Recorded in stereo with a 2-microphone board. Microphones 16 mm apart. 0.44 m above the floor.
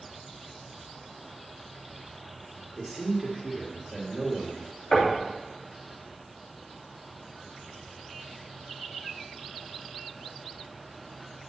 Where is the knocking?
20° left (ahead or behind), 2.5 m.